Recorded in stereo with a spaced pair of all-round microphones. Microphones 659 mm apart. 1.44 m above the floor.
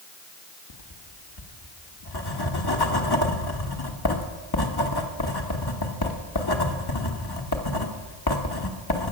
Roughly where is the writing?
Left.